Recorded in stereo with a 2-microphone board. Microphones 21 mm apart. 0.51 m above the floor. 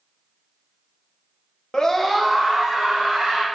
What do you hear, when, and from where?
1.7 s a scream: 35° left (ahead or behind), 0.8 m; by 3.4 s 35° right (ahead or behind), 2 m